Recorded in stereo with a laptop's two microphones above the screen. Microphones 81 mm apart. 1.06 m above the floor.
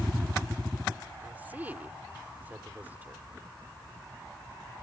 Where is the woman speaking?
20° right (ahead or behind).